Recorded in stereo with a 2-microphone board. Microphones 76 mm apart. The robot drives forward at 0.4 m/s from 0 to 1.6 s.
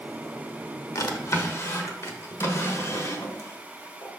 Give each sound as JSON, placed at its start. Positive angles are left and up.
{"t": 0.9, "sound": "a drawer", "side_deg": 50, "distance_m": 0.8}